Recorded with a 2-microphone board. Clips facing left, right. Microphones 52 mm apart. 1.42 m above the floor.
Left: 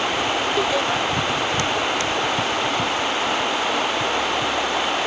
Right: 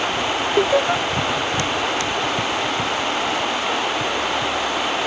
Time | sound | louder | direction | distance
0.6 | laughter | right 7 dB | 30° right (ahead or behind) | ?